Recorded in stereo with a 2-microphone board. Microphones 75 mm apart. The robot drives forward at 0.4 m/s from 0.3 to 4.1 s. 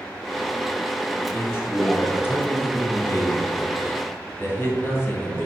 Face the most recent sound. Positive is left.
turn(degrees=35)  # may be behind; listen again after turning